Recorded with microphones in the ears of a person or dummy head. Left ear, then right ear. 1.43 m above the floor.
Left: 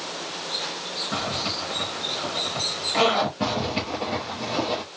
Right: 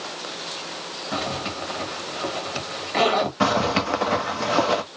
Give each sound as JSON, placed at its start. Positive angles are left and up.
{"t": 1.1, "sound": "a zipper", "side_deg": -15, "distance_m": 2.0}
{"t": 3.4, "sound": "a zipper", "side_deg": -50, "distance_m": 1.1}